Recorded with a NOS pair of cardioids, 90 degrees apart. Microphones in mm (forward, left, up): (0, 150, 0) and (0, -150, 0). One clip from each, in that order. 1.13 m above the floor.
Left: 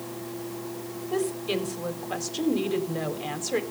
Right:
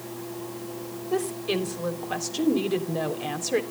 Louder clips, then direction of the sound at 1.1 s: Right 1 dB; 10° right.